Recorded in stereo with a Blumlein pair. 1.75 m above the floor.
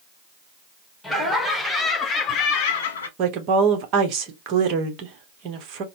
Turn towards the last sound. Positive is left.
turn(degrees=-40)